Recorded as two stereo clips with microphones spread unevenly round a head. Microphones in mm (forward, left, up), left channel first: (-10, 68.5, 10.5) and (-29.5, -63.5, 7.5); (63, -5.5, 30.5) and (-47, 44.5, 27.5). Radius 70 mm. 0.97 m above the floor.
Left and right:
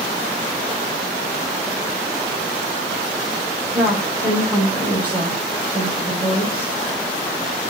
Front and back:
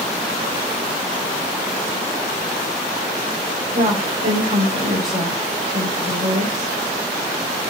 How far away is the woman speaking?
About 3.5 m.